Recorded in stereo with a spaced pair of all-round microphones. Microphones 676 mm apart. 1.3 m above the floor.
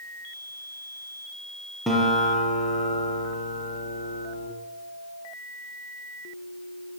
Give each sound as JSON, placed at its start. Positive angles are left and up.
{"t": 1.9, "sound": "a guitar", "side_deg": 0, "distance_m": 7.0}